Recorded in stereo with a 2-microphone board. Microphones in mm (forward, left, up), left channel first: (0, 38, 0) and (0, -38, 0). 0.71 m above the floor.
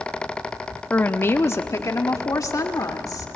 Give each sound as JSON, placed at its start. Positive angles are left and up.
{"t": 0.9, "sound": "a woman speaking", "side_deg": 25, "distance_m": 0.8}